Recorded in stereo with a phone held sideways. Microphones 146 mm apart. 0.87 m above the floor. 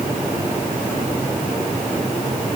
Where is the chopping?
No chopping in this recording.